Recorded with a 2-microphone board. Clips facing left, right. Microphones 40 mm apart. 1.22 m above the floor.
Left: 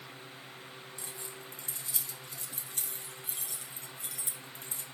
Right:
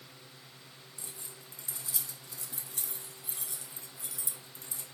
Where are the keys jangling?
50° left (ahead or behind), 1.6 m.